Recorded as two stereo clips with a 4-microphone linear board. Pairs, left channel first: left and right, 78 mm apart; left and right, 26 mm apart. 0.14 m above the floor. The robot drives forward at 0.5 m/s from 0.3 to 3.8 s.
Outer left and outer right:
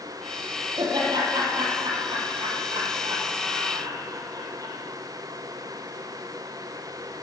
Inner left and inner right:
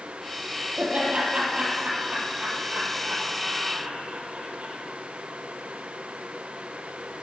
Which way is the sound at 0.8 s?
70° right (ahead or behind).